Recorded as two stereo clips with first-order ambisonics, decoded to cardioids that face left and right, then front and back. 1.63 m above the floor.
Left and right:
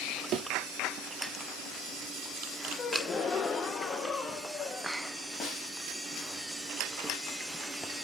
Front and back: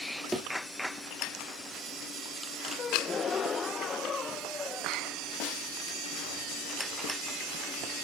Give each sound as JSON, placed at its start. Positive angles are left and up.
{"t": 0.3, "sound": "a thud", "azimuth_deg": -100, "distance_m": 1.9}
{"t": 2.8, "sound": "a gasp", "azimuth_deg": 50, "distance_m": 0.8}
{"t": 5.4, "sound": "a snare drum", "azimuth_deg": 30, "distance_m": 2.5}